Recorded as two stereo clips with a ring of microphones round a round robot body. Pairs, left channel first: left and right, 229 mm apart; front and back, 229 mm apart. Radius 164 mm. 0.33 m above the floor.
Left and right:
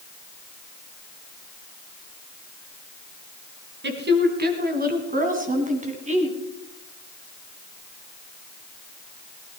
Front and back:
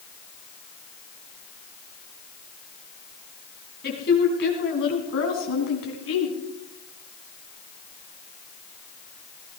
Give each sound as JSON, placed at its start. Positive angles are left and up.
{"t": 3.8, "sound": "a woman speaking", "azimuth_deg": -55, "distance_m": 3.0}